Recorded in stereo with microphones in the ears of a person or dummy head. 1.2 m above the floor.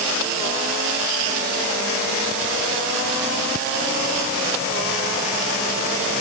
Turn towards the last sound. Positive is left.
No sound to turn to.